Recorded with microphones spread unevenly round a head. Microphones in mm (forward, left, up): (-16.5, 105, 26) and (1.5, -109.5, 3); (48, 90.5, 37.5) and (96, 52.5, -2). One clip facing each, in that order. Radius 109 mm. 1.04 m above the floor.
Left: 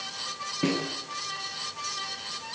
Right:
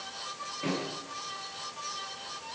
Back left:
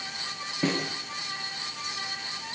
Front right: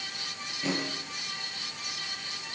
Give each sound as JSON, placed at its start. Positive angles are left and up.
{"t": 0.6, "sound": "a snare drum", "azimuth_deg": 125, "distance_m": 6.5}